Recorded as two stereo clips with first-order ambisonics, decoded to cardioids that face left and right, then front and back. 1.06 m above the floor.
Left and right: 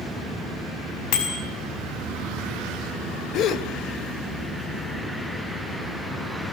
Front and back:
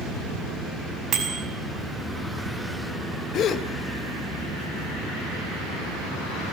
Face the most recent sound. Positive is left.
turn(degrees=50)